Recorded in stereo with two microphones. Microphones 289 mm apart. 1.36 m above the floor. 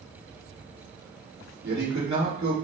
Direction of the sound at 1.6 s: 70° right (ahead or behind).